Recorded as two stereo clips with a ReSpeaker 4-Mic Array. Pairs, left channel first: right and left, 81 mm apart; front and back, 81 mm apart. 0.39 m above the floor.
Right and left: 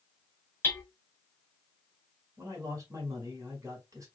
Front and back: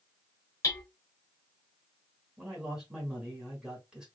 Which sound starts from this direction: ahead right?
Hammering, at 0.6 s.